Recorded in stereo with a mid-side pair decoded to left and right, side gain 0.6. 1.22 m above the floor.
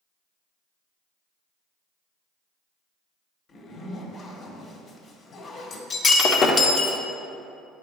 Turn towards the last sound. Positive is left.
turn(degrees=40)